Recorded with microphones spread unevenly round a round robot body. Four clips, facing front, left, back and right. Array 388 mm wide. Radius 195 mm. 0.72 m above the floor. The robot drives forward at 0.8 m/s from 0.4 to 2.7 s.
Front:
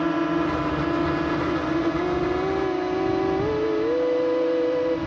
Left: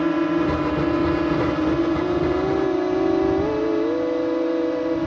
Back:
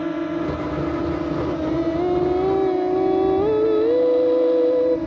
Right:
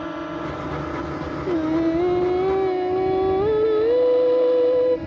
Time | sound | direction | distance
0.0 | a drone | 85° left | ?
1.5 | singing | 85° right | ?